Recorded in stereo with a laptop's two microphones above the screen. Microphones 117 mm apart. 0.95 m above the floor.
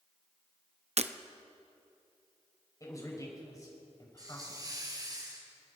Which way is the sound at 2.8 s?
30° left (ahead or behind).